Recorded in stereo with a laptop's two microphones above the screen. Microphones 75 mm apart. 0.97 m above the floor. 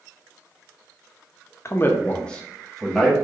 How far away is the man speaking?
About 0.6 m.